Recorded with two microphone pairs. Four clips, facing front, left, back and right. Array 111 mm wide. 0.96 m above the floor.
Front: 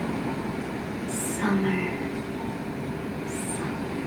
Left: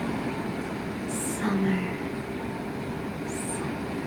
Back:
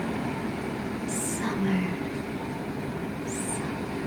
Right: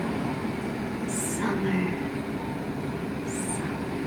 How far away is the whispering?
About 4.5 m.